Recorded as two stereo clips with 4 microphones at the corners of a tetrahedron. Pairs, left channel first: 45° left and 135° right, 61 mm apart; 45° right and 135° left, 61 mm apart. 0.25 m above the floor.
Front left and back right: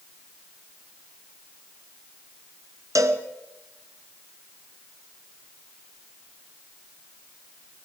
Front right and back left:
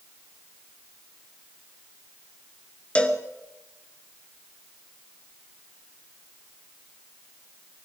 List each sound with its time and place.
3.0 s a cowbell: 115° right, 1.4 m